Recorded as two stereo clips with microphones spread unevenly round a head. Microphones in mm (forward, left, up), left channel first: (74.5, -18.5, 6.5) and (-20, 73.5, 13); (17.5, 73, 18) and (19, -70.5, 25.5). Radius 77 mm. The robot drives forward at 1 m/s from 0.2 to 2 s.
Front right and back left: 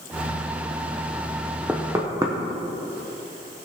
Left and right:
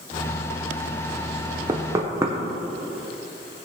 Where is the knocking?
145° right, 0.6 m; by 2.4 s 155° right, 0.9 m.